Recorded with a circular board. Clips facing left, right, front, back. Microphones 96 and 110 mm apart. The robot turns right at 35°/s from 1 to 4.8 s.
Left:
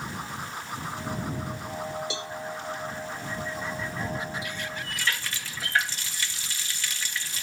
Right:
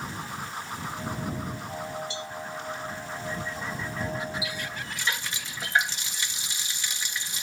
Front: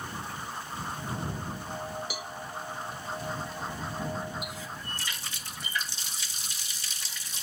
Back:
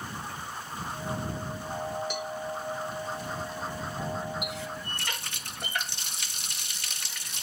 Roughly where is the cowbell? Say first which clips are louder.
Left 2 dB, back 5 dB; left.